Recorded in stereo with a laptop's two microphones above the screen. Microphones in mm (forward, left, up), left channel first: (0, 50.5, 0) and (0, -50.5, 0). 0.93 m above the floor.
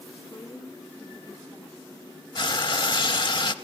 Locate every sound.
0.2 s a woman speaking: 30° left (ahead or behind), 1.6 m
2.4 s frying: 50° left (ahead or behind), 0.6 m